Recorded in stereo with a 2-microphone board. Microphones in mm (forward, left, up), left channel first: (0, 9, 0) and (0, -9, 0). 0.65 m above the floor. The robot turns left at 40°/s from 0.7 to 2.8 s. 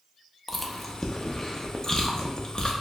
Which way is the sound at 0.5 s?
5° left (ahead or behind).